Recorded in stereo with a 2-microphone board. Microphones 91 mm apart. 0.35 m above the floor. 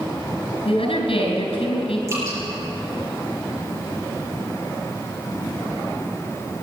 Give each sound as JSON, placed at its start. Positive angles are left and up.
{"t": 0.7, "sound": "a woman speaking", "side_deg": 75, "distance_m": 4.0}
{"t": 2.1, "sound": "dripping", "side_deg": -30, "distance_m": 5.5}